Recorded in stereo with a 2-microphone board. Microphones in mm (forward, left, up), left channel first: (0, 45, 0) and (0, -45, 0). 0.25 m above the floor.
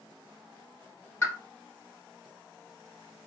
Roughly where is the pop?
Left.